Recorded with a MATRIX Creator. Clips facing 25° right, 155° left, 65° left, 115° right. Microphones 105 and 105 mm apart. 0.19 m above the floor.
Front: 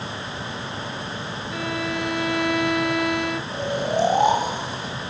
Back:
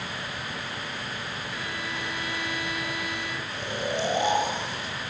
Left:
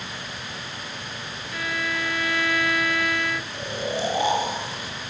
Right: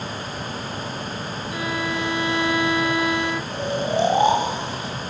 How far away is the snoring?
About 8 m.